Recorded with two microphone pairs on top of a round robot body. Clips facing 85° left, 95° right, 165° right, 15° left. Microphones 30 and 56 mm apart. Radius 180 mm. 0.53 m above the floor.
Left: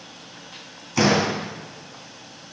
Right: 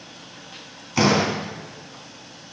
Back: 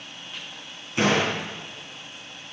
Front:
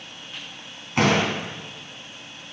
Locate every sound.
1.0 s a door slam: 20° right, 3.5 m